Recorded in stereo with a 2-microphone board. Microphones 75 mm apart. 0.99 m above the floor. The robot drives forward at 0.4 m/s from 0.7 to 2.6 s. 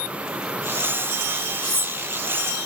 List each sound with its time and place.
1.6 s cutlery clinking: 55° left (ahead or behind), 1.3 m